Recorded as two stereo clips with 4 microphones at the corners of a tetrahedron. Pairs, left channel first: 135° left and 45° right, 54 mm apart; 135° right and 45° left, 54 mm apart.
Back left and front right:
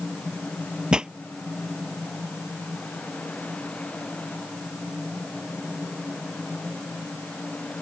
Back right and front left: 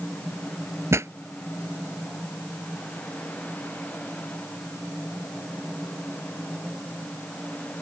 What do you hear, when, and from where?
0.9 s a pop: 25° left